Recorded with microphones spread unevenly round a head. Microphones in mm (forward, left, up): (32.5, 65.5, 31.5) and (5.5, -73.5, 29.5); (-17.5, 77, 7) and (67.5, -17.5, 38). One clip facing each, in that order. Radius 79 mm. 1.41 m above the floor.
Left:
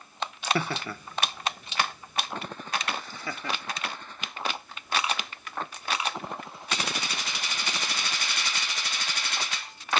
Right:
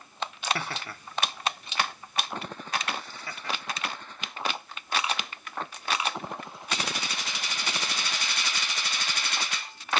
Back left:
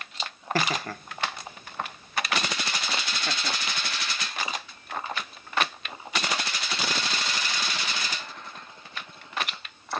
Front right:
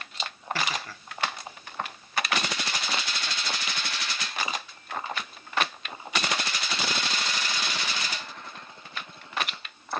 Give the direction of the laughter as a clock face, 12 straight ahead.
9 o'clock.